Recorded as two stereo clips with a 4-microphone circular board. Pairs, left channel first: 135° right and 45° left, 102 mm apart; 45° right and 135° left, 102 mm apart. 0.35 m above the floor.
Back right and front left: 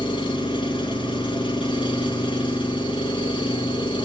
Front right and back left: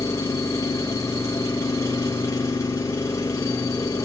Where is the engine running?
105° right, 3.5 m.